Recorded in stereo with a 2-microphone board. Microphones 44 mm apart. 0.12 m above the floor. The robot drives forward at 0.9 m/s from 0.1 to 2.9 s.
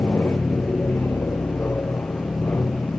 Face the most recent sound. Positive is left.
turn(degrees=55)  # may be behind; listen again after turning